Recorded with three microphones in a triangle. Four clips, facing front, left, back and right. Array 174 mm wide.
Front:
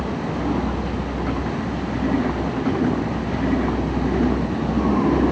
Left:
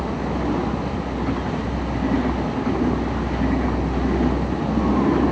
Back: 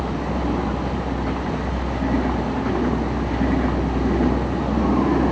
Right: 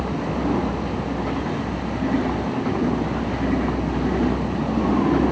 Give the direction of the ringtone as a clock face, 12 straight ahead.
I don't hear a ringtone.